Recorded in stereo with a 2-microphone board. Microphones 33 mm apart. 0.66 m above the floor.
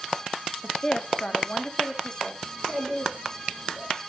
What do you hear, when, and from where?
0.6 s a woman speaking: 15° left (ahead or behind), 0.6 m; by 2.3 s 30° left (ahead or behind), 1.3 m
2.4 s a child speaking: 40° right (ahead or behind), 5.5 m